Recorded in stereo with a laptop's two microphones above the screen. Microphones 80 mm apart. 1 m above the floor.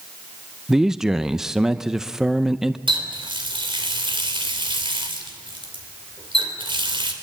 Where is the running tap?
75° right (ahead or behind), 3 m.